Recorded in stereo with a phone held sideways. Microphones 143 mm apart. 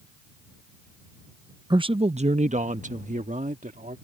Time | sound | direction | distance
1.7 | a man speaking | 30° right (ahead or behind) | ?